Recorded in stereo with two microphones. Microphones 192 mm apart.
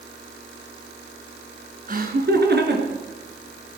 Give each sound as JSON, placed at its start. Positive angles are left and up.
{"t": 1.9, "sound": "laughter", "side_deg": -45, "distance_m": 2.5}